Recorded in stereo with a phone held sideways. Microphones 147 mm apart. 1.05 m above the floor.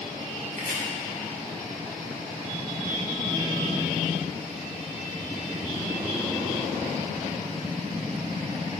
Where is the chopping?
60° right (ahead or behind), 2.0 m.